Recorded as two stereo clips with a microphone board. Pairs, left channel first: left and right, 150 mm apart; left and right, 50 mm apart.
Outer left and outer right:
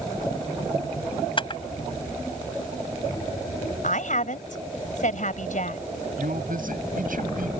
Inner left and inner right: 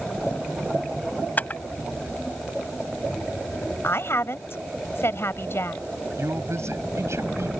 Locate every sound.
1.4 s a camera shutter: 35° left (ahead or behind)
3.8 s a woman speaking: 65° left (ahead or behind)
6.2 s a man speaking: 85° right